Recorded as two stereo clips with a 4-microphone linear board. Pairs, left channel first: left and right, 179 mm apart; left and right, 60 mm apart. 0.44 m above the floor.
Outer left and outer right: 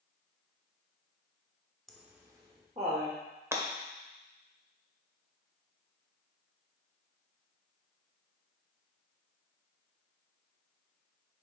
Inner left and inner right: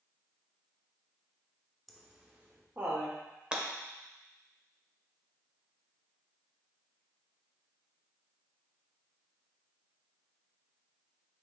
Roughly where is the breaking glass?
Centre.